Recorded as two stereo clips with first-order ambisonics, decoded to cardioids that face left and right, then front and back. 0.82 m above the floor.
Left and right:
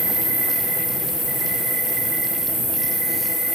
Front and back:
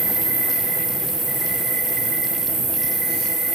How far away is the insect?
About 0.9 m.